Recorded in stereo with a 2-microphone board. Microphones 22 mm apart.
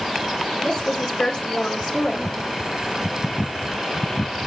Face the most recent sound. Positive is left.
turn(degrees=60)  # may be behind; listen again after turning